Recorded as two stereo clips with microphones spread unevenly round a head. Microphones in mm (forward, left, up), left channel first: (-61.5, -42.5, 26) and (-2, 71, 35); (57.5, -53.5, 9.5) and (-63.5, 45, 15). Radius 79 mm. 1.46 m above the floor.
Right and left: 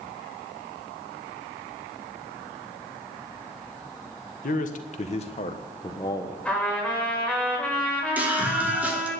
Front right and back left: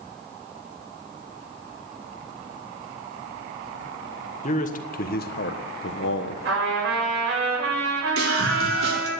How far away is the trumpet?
About 5.5 m.